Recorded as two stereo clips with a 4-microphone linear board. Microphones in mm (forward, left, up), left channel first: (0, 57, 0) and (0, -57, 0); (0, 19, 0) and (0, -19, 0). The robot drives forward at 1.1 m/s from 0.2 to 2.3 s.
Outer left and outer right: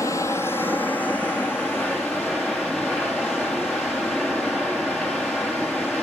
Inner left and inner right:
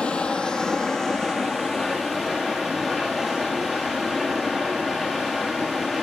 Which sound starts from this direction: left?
Running water, at 0.0 s.